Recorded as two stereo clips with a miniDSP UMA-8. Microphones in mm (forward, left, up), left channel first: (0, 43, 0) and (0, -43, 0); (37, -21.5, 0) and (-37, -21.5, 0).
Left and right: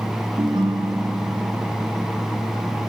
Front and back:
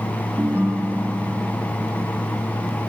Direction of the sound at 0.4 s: 120° right.